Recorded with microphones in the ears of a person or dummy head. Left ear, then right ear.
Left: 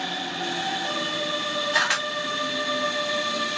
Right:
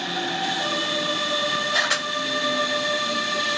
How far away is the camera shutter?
About 1.1 m.